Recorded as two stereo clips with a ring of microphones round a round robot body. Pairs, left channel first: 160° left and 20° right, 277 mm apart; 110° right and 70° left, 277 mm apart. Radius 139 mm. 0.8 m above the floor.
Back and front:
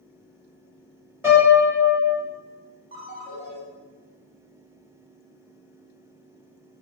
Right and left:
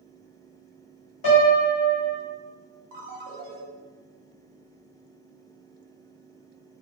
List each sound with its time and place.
1.2 s a piano: 105° right, 1.9 m
2.9 s a ringtone: 25° left, 1.1 m